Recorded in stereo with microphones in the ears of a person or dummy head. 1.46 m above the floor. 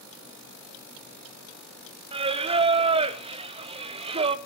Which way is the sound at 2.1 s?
35° right (ahead or behind).